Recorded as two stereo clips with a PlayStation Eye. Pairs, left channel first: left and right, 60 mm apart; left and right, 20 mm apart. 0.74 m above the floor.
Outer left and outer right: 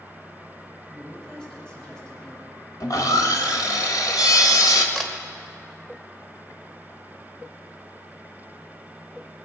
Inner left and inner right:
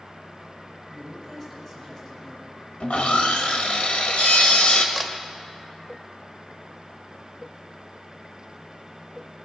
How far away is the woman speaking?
About 5 m.